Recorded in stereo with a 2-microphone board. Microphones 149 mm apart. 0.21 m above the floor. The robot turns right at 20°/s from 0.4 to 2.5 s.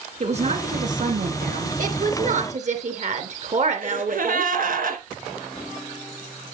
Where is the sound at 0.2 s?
45° right (ahead or behind), 3 m; by 1.7 s 65° right (ahead or behind), 3 m.